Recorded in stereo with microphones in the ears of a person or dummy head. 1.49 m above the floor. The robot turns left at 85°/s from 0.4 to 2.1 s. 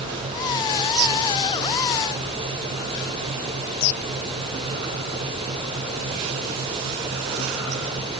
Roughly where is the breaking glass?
I don't hear breaking glass.